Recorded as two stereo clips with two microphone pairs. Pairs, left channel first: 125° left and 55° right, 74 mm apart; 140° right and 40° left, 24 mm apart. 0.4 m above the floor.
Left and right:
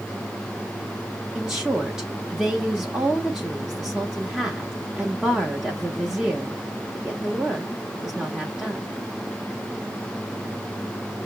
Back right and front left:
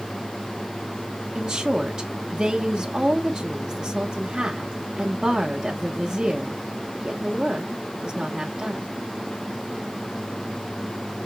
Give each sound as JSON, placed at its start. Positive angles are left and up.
{"t": 1.4, "sound": "a woman speaking", "azimuth_deg": 15, "distance_m": 1.2}